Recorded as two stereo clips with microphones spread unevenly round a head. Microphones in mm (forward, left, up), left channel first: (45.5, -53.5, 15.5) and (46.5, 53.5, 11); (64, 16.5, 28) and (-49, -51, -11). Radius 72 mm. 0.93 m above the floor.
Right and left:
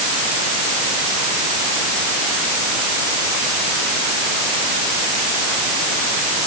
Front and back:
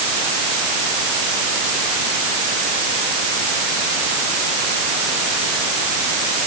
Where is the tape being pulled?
I don't hear tape being pulled.